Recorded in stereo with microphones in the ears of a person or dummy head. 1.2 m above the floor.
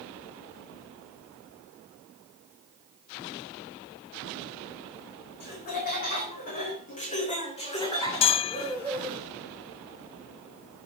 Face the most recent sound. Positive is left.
turn(degrees=35)  # may be behind; listen again after turning